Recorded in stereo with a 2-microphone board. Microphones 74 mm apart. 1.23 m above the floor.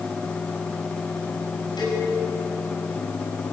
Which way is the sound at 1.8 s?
85° left.